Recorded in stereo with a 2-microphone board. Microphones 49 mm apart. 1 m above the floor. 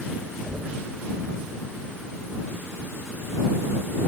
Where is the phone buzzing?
I don't hear a phone buzzing.